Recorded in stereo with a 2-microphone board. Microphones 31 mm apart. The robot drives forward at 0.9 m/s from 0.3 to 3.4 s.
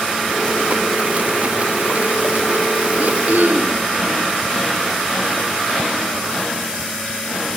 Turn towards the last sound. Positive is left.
turn(degrees=-70)  # may be behind; listen again after turning